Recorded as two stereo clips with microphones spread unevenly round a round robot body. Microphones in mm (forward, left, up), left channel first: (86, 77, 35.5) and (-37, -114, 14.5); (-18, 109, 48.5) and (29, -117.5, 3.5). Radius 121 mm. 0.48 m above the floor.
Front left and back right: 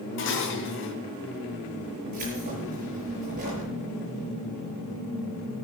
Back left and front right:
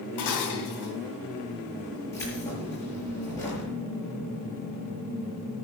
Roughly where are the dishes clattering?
Left.